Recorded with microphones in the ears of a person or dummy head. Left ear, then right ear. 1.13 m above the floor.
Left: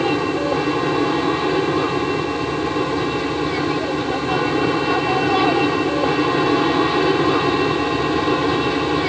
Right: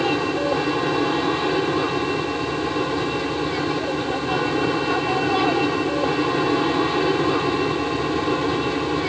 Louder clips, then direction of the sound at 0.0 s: Left 2 dB; 5° right (ahead or behind).